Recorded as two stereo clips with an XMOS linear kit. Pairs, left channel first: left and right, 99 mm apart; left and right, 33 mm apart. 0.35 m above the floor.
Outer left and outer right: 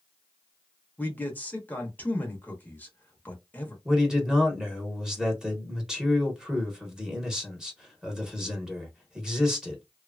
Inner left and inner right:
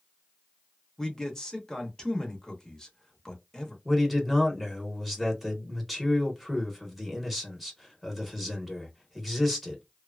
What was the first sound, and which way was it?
A man speaking, 20° left (ahead or behind).